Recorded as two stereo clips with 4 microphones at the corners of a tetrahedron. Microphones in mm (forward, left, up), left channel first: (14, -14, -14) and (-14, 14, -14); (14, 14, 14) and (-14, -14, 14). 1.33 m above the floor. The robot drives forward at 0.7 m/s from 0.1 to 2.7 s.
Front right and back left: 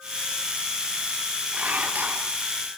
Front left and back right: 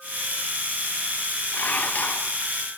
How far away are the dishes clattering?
About 2.5 m.